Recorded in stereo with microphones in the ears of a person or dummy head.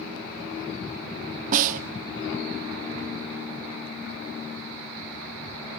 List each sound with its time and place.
1.5 s a snare drum: 40° right (ahead or behind), 0.9 m